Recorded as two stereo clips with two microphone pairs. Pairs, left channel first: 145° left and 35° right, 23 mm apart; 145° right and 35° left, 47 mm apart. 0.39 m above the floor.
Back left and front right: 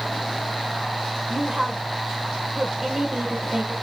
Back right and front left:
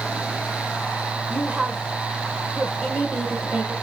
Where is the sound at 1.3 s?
15° right, 1.2 m.